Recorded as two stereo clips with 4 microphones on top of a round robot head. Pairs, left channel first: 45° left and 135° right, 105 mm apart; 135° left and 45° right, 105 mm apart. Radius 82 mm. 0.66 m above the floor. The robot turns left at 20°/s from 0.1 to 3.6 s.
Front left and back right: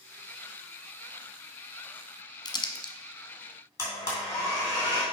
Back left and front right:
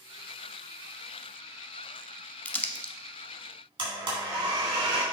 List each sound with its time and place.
2.5 s crumpling: 65° left, 1.0 m; by 2.9 s 55° left, 1.0 m
3.8 s a blender: 15° right, 3 m